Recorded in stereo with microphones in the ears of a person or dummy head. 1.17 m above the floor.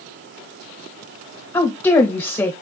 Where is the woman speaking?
15° left (ahead or behind), 1.0 m.